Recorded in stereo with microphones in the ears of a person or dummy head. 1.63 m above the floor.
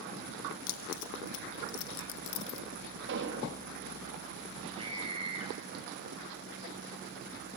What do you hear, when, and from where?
0.7 s keys jangling: 75° left (ahead or behind), 1.9 m; by 2.6 s 60° left (ahead or behind), 1.0 m
3.1 s an explosion: 60° right (ahead or behind), 3.5 m
4.8 s a scream: 25° right (ahead or behind), 8.5 m